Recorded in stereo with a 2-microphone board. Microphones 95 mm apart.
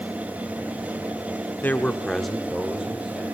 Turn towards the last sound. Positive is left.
turn(degrees=-10)  # may be behind; listen again after turning